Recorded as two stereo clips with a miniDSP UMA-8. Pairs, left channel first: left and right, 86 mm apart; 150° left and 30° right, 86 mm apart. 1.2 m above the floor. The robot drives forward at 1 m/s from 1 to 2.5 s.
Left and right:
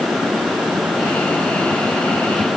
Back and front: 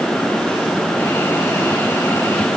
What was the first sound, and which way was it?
Only background noise.